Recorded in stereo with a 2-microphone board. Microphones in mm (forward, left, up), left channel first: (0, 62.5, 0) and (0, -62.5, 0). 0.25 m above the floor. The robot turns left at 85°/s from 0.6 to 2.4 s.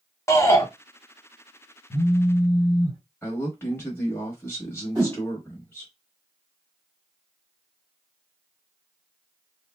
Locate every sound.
0.3 s a shout: 25° left (ahead or behind), 1.1 m
1.9 s a phone buzzing: 125° left, 1.5 m; by 3.0 s 80° left, 1.5 m
3.2 s a man speaking: 20° left (ahead or behind), 1.0 m
5.0 s a whoosh: 30° right (ahead or behind), 1.7 m